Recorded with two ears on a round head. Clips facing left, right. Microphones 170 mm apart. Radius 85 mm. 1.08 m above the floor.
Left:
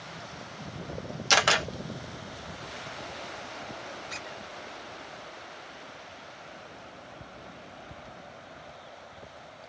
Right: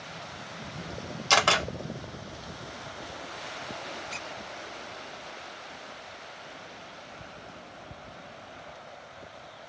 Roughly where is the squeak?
Centre.